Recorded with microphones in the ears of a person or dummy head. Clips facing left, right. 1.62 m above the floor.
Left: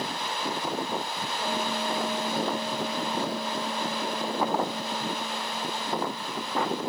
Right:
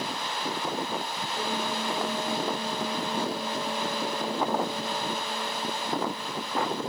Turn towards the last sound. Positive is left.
turn(degrees=-30)  # may be behind; listen again after turning